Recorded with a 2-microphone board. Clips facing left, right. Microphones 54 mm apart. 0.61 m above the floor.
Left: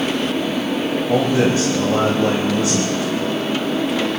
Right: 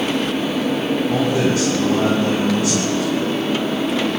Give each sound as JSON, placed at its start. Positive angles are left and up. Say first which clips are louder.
{"t": 1.1, "sound": "a man speaking", "louder": "left 4 dB", "side_deg": 30, "distance_m": 3.0}